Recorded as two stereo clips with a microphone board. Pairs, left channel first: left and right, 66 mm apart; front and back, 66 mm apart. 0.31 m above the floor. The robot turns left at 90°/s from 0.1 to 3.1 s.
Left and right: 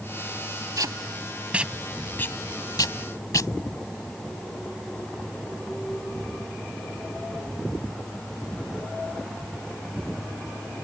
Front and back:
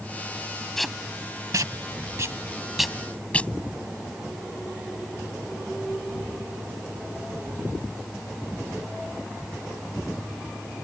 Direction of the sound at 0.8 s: 85° right.